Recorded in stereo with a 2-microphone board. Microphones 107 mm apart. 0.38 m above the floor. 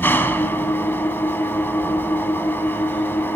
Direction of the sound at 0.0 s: 20° left (ahead or behind).